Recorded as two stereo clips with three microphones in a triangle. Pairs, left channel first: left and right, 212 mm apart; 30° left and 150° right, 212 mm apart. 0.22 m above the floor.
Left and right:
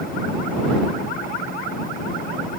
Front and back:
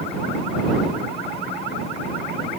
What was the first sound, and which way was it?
Only background noise.